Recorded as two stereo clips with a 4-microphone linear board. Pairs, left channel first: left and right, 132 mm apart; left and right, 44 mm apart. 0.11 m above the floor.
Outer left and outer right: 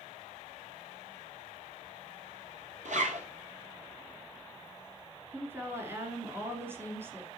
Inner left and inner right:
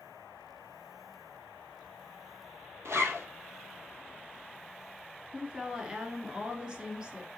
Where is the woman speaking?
20° right (ahead or behind), 1.5 m.